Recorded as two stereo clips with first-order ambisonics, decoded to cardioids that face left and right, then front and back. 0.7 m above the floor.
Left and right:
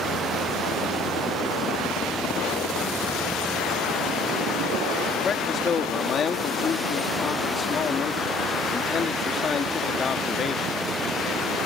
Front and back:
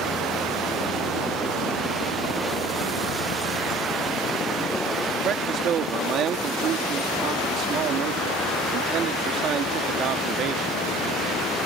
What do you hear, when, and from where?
5.2 s a man speaking: 145° left